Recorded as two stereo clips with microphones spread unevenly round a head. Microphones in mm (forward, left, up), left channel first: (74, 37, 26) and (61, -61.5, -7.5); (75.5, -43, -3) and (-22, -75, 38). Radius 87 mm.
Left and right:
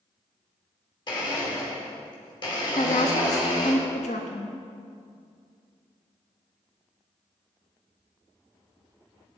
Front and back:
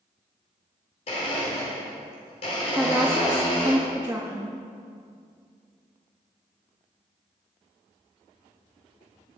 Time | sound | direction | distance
1.1 | a blender | 40° left | 3.5 m
2.7 | a woman speaking | 120° left | 1.0 m